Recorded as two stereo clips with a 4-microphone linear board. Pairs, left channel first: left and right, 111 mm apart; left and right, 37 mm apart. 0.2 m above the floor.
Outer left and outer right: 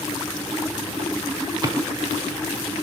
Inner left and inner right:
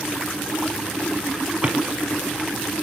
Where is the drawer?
35° right (ahead or behind), 0.8 m.